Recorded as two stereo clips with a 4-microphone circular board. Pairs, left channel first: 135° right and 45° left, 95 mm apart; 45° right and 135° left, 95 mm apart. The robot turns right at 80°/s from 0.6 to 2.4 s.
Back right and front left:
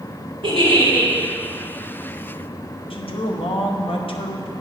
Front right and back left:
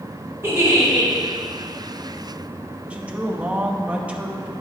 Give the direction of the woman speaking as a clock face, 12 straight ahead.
5 o'clock.